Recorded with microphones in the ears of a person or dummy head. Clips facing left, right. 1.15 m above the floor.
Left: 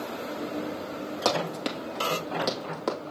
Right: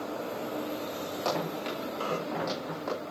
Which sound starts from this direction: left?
Running footsteps, at 1.2 s.